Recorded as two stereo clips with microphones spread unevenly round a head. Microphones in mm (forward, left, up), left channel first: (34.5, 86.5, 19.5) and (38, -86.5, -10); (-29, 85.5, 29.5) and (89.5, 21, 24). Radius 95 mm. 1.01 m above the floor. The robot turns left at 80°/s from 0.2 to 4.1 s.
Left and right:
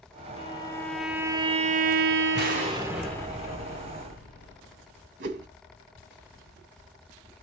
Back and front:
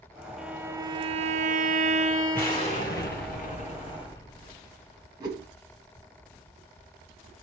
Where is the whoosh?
95° right, 1.1 m.